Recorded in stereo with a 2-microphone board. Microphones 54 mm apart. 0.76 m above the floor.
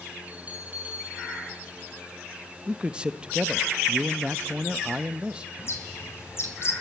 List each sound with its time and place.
0.3 s a bell: 30° right (ahead or behind), 6 m
2.7 s a man speaking: 20° right (ahead or behind), 0.7 m
5.6 s a bird: 50° left (ahead or behind), 3 m